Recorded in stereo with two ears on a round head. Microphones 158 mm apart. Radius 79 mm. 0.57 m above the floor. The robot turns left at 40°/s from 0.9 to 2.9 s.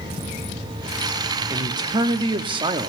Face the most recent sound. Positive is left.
turn(degrees=-25)  # may be behind; listen again after turning